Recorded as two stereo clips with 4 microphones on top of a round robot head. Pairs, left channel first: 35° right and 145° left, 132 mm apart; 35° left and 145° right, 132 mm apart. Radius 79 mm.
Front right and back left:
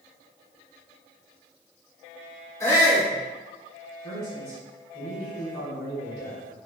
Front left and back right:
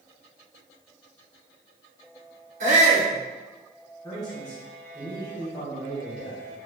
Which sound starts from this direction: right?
A shout, at 2.6 s.